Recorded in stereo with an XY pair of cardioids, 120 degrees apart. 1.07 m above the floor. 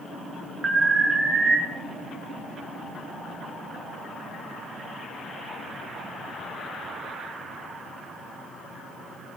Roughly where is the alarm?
Ahead right.